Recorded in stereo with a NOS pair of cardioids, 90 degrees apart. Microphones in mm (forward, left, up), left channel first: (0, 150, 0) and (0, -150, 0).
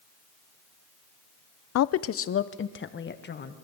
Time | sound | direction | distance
1.8 | a woman speaking | 60° left | 0.6 m